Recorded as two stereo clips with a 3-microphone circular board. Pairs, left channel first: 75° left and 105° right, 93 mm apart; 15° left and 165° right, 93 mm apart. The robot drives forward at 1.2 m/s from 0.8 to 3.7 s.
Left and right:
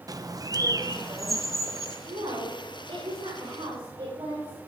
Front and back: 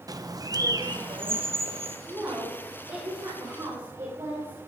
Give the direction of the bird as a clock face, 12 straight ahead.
5 o'clock.